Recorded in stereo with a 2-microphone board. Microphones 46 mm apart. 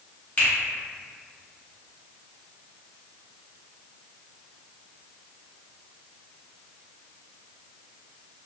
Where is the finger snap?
30° left (ahead or behind), 1.4 m.